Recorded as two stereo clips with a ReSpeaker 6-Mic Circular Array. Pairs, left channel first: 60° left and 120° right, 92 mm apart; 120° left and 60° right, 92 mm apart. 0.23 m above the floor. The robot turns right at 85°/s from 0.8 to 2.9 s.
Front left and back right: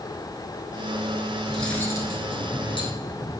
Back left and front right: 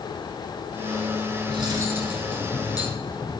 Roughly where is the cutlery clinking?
Ahead right.